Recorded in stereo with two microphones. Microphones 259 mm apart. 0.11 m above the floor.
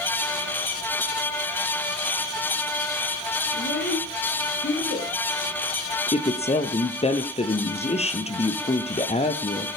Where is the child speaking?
50° left (ahead or behind), 10 m; by 5.1 s 40° left (ahead or behind), 8.5 m.